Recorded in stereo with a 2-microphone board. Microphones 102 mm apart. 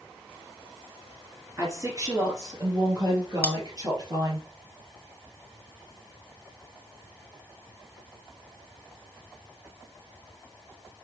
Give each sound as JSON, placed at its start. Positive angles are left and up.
{"t": 1.6, "sound": "a woman speaking", "side_deg": -25, "distance_m": 2.5}
{"t": 3.4, "sound": "cutlery clinking", "side_deg": 15, "distance_m": 0.7}